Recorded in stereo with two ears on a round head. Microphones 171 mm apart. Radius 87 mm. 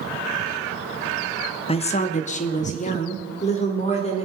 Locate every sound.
1.7 s a woman speaking: 30° left (ahead or behind), 0.7 m; by 4.2 s 35° left (ahead or behind), 2.0 m